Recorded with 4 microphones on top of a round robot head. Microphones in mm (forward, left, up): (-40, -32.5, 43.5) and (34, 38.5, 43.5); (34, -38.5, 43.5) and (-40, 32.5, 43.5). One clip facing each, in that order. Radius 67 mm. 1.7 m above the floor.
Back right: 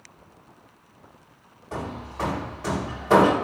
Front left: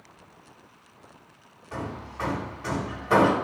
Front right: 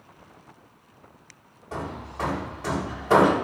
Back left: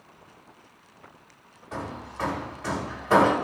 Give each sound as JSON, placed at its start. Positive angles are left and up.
{"t": 1.7, "sound": "hammering", "azimuth_deg": -95, "distance_m": 2.0}